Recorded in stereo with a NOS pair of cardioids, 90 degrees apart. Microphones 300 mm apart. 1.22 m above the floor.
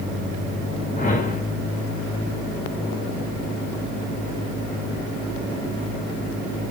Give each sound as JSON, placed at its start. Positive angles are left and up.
{"t": 1.0, "sound": "a whoosh", "azimuth_deg": 25, "distance_m": 3.5}